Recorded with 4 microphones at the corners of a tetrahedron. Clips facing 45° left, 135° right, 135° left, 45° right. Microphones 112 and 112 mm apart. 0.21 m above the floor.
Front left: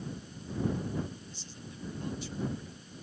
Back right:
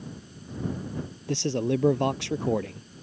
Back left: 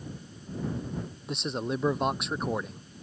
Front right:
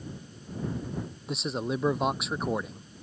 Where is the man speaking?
135° right.